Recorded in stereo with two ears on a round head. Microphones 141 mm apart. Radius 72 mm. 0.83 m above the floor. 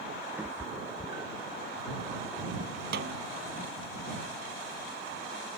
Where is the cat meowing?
10° right (ahead or behind); by 1.6 s 20° right (ahead or behind).